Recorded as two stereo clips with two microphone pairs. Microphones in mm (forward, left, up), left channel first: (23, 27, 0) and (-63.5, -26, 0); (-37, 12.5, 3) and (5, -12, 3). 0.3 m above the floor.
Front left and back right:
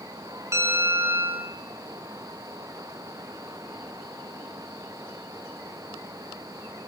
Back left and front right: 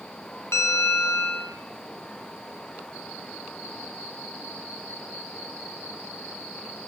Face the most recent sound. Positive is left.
turn(degrees=150)